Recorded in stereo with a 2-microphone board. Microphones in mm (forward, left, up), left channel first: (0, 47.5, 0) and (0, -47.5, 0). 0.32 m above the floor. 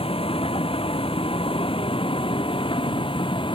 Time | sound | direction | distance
0.0 | a vehicle | 75° left (ahead or behind) | ?